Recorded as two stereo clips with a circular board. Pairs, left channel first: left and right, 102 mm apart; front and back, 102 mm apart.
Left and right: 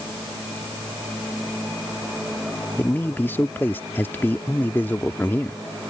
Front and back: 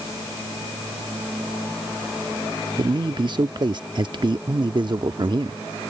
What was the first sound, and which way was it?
A man speaking, 155° left.